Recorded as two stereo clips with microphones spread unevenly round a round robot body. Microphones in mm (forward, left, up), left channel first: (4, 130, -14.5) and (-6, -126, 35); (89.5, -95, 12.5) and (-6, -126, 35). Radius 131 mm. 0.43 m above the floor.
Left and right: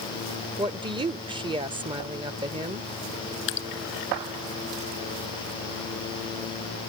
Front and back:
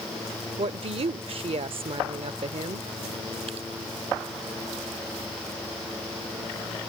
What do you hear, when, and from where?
0.6 s a woman speaking: 170° right
3.5 s dripping: 135° left